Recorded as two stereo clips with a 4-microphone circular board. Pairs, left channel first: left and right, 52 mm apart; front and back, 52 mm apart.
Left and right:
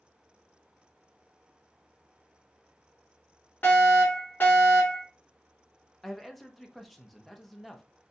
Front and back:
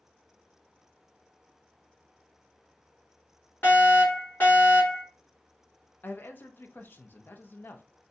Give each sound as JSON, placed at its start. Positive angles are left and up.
{"t": 3.6, "sound": "a fire alarm", "azimuth_deg": 45, "distance_m": 2.0}
{"t": 6.0, "sound": "a man speaking", "azimuth_deg": 0, "distance_m": 0.6}